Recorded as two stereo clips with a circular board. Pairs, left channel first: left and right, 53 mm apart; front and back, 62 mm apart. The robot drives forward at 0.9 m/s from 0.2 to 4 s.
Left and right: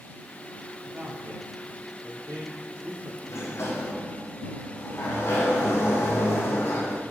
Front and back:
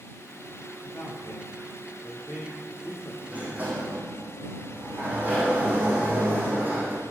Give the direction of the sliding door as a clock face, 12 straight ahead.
8 o'clock.